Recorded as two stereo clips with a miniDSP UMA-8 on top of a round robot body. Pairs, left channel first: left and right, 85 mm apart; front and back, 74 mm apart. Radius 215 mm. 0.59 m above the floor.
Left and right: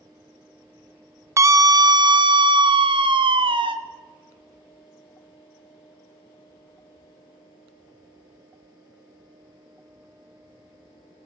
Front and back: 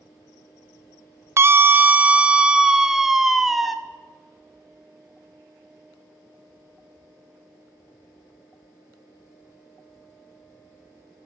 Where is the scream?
135° right, 0.8 m; by 3.7 s 95° right, 1.7 m.